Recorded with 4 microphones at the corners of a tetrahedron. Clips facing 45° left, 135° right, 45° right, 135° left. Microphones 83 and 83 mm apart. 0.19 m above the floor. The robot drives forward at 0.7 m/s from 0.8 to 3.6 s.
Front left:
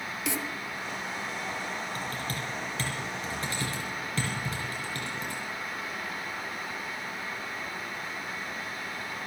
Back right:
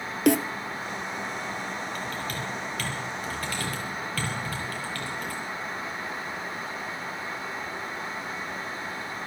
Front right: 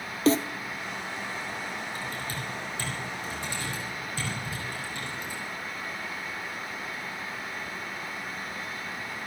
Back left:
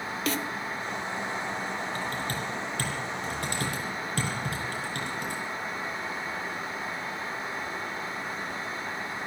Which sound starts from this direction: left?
Typing on a keyboard, at 1.9 s.